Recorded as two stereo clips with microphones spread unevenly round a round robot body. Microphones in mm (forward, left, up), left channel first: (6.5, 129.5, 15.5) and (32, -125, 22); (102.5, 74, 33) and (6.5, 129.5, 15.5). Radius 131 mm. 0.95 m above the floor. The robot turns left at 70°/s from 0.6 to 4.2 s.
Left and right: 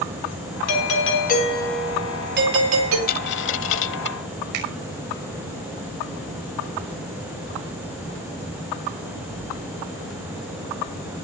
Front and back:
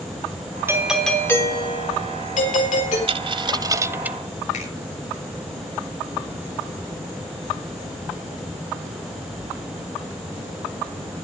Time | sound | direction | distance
0.7 | a doorbell | 85° left | 4.5 m
3.1 | a dropped coin | 140° left | 0.9 m
4.5 | a finger snap | 85° right | 5.5 m